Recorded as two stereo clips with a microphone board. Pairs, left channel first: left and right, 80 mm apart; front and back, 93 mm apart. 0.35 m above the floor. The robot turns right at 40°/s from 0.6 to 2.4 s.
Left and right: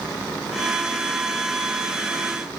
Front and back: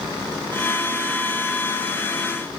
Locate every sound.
Only background noise.